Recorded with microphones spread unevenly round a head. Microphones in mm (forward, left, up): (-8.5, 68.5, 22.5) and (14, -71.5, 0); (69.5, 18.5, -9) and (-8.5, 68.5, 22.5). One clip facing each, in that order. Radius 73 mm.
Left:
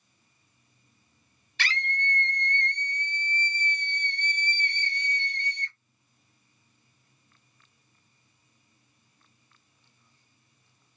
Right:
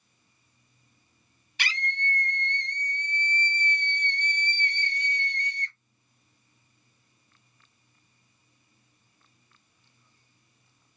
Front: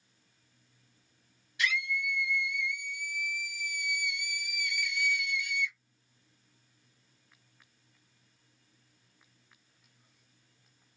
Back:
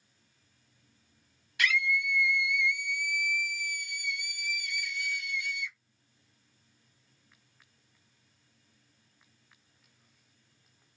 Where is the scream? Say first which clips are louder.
Left 1 dB, back 3 dB; 165° right, 0.6 m; by 5.8 s 95° left, 2.0 m.